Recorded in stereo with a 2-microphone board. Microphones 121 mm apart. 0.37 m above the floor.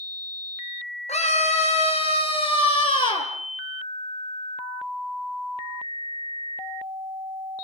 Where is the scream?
70° left (ahead or behind), 5.5 m; by 3.3 s 40° left (ahead or behind), 7 m.